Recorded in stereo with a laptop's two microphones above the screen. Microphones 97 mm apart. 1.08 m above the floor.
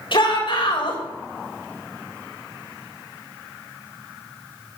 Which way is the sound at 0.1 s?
60° left (ahead or behind).